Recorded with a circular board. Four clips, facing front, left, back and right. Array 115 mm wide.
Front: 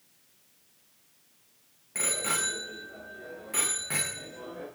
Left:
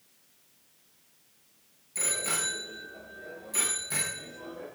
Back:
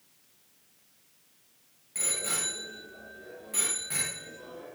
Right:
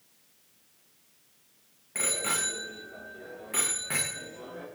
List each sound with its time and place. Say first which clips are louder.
1.9 s a bicycle bell: right 2 dB, front 5 dB; 55° right, 7.5 m; by 4.7 s 60° right, 9 m